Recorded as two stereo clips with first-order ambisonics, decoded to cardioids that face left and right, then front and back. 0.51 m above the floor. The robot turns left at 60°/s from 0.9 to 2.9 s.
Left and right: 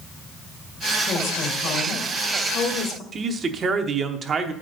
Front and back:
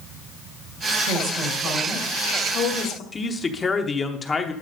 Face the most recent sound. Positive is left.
turn(degrees=-55)